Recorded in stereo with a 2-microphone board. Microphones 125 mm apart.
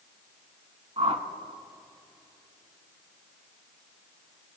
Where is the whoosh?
55° right (ahead or behind), 0.7 m.